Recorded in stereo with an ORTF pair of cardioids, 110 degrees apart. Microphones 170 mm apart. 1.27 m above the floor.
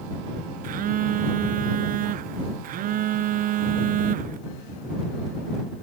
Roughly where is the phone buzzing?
Ahead right.